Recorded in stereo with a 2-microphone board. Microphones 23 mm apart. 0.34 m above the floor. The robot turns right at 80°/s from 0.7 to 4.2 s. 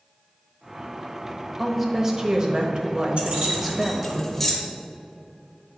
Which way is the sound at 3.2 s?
70° right (ahead or behind).